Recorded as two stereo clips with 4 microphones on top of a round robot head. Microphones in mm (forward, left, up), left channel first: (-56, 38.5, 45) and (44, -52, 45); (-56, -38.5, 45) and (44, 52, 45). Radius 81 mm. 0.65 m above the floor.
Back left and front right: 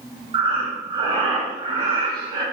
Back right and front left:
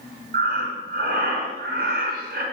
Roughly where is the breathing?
Ahead.